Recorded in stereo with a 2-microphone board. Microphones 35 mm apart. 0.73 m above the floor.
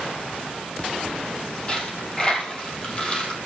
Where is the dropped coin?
30° left (ahead or behind), 2.5 m.